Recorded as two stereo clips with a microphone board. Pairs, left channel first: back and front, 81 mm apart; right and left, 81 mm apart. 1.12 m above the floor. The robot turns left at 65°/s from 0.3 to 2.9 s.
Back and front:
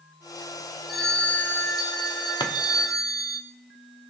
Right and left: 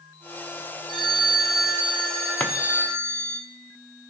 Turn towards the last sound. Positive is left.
turn(degrees=165)